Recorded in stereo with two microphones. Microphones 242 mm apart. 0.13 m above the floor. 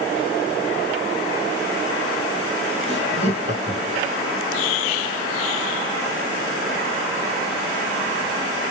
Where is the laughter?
25° right (ahead or behind), 1.5 m.